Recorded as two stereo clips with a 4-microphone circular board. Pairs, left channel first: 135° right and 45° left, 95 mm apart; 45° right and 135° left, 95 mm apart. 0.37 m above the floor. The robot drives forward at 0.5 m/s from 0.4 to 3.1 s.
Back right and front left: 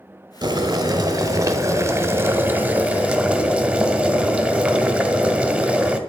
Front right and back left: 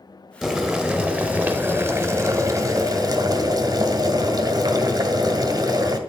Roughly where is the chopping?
No chopping in this recording.